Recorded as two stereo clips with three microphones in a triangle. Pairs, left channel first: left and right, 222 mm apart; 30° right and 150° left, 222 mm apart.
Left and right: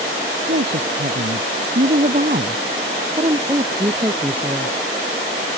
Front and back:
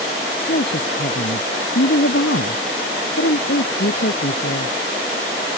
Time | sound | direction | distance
0.5 | a woman speaking | 60° right | ?